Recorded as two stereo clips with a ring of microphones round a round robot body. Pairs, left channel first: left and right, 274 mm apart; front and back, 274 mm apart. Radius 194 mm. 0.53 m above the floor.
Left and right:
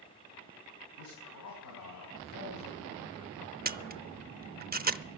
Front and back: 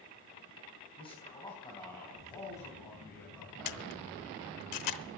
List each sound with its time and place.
1.0 s a man speaking: 70° left, 4.5 m; by 4.3 s 85° left, 6.5 m
3.6 s a camera shutter: 30° right, 0.7 m